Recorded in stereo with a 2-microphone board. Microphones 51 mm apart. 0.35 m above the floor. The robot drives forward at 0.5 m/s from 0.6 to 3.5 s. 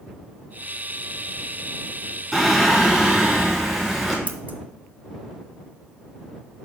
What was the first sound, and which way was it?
Singing, centre (ahead or behind).